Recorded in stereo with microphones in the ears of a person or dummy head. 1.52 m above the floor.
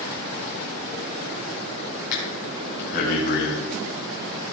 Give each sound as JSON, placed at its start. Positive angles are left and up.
{"t": 2.1, "sound": "breathing", "side_deg": 55, "distance_m": 3.0}